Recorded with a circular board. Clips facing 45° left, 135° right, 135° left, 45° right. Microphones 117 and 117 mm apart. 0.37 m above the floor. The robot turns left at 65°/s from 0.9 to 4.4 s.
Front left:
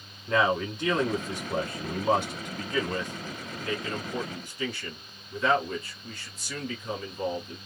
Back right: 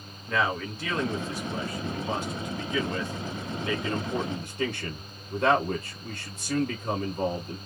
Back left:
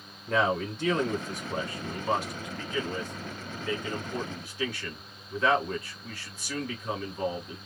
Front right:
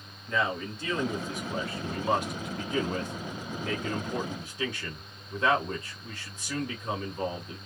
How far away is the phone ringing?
I don't hear a phone ringing.